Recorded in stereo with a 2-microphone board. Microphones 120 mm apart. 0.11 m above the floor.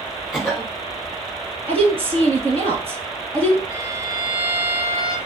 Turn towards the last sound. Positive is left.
turn(degrees=-45)  # may be behind; listen again after turning